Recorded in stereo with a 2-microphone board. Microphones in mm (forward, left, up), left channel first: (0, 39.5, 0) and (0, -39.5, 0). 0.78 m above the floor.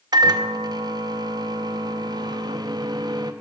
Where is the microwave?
55° right (ahead or behind), 0.6 m.